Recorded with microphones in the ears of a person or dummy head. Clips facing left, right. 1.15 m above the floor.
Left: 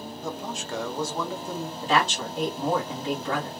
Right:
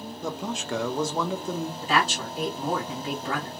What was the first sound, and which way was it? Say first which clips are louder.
A man speaking: right 3 dB; 65° right (ahead or behind).